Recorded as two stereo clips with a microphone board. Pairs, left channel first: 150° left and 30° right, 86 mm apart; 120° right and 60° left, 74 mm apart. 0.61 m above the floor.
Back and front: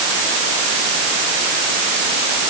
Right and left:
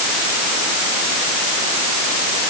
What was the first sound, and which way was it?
Only background noise.